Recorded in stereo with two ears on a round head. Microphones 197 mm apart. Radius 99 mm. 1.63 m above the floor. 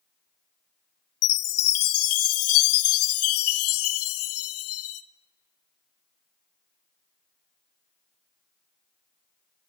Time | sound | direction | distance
1.2 | a chime | 75° left (ahead or behind) | 1.1 m